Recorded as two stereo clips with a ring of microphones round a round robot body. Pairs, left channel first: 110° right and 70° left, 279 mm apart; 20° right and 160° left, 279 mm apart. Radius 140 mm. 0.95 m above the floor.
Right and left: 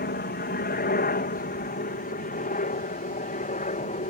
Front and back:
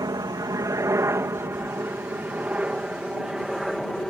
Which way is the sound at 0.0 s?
135° right.